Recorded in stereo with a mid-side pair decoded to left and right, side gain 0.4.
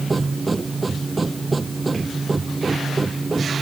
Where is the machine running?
30° right.